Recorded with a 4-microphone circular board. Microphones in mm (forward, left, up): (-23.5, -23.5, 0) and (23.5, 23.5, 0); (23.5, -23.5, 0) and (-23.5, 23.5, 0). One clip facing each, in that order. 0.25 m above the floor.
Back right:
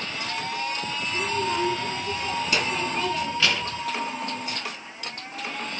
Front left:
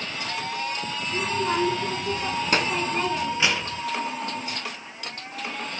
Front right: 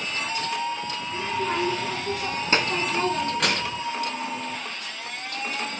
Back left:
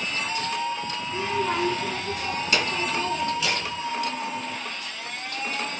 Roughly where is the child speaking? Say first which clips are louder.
Front left 1 dB, back left 1 dB; ahead left.